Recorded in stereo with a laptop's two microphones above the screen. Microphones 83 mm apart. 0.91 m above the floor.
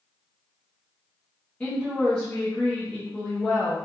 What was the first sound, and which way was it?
A woman speaking, 15° left (ahead or behind).